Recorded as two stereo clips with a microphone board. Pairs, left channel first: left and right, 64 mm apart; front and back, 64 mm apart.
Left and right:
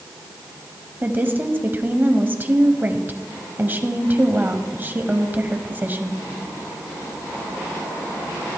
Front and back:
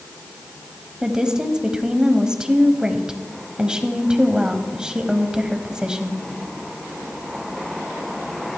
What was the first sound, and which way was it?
A woman speaking, 110° right.